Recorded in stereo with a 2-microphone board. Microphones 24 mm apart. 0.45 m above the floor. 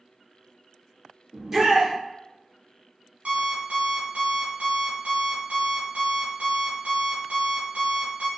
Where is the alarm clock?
65° right (ahead or behind), 1.6 m.